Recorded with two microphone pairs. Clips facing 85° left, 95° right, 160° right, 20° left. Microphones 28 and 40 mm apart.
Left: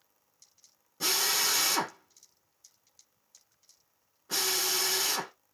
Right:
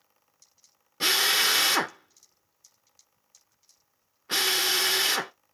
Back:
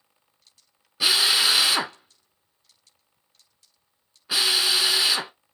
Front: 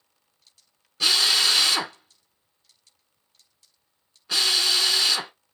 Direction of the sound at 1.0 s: 90° right.